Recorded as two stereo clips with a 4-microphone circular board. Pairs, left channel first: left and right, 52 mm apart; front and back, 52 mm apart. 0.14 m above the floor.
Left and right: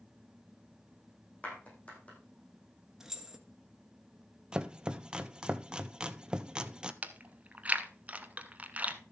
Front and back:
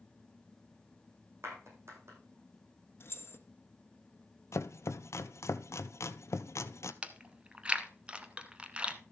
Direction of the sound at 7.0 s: 125° right.